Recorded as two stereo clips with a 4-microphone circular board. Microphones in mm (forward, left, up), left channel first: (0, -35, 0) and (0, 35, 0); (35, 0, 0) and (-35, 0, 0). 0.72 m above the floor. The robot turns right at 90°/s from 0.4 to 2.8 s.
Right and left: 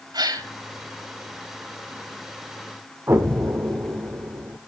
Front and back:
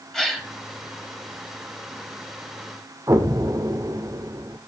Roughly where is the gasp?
Left.